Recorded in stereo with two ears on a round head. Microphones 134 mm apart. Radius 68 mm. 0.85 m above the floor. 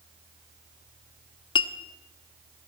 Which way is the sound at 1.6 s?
35° left (ahead or behind).